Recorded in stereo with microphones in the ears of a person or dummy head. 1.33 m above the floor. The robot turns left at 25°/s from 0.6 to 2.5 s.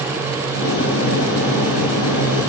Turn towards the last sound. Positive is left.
No sound to turn to.